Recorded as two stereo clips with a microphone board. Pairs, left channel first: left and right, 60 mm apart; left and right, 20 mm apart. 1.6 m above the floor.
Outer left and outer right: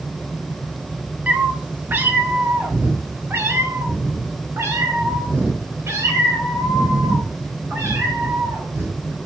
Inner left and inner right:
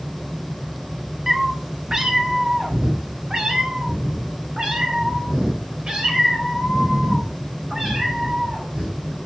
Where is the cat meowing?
20° right (ahead or behind), 1.0 m; by 9.2 s 50° right (ahead or behind), 5 m.